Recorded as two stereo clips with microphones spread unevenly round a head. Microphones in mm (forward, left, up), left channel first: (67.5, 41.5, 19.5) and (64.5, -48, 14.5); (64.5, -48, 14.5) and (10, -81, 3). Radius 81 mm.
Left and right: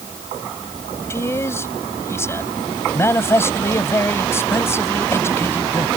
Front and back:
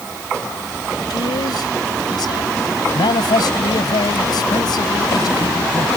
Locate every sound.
1.1 s a man speaking: 30° left